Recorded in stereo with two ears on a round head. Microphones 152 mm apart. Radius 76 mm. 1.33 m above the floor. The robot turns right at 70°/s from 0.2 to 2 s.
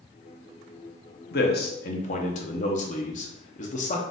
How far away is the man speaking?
About 0.9 m.